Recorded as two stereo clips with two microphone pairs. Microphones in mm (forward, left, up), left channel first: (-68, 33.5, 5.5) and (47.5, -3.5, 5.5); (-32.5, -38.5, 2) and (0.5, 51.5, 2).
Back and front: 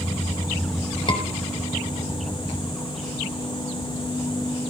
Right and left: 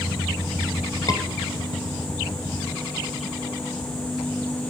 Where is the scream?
155° right, 3 m.